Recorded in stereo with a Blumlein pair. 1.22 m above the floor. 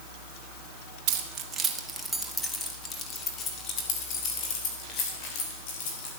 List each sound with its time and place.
1.1 s keys jangling: 45° right, 1.2 m; by 6.1 s 45° left, 4 m